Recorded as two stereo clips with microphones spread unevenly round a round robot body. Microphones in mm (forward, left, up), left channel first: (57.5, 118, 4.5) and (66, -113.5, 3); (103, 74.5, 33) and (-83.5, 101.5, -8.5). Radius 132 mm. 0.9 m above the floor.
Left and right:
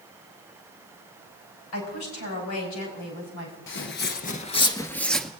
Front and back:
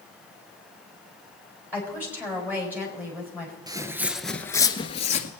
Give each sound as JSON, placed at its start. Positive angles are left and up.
{"t": 1.7, "sound": "a woman speaking", "azimuth_deg": 90, "distance_m": 6.0}
{"t": 3.7, "sound": "footsteps", "azimuth_deg": 95, "distance_m": 1.2}